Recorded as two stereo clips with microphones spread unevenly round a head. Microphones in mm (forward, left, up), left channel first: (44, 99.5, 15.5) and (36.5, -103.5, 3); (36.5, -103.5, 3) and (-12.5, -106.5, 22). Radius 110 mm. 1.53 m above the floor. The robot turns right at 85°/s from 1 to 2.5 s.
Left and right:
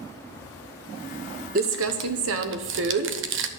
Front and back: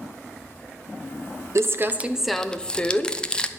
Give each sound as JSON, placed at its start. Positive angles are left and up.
{"t": 1.6, "sound": "crumpling", "azimuth_deg": -145, "distance_m": 0.9}